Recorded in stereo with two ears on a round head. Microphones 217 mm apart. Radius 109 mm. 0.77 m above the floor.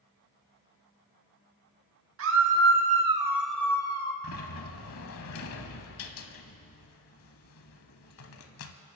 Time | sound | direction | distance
2.2 | a scream | 60° right (ahead or behind) | 1.7 m
4.2 | a sliding door | 60° left (ahead or behind) | 1.0 m